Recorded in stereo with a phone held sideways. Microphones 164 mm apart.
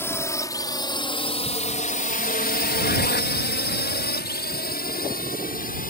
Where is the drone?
15° left (ahead or behind); by 5.9 s 50° left (ahead or behind).